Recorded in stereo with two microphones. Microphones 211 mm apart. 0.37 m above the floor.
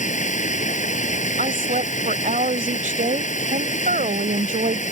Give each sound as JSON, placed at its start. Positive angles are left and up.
{"t": 0.0, "sound": "running water", "side_deg": 35}
{"t": 1.4, "sound": "a woman speaking", "side_deg": -40}